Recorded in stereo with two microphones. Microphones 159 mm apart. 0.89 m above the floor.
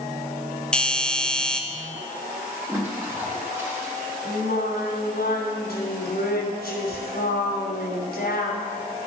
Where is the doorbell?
5° left (ahead or behind), 0.8 m.